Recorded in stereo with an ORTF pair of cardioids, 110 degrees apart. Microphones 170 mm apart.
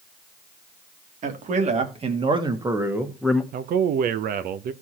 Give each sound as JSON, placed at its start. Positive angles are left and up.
{"t": 1.2, "sound": "a man speaking", "azimuth_deg": -50, "distance_m": 2.5}
{"t": 3.5, "sound": "a man speaking", "azimuth_deg": -60, "distance_m": 1.0}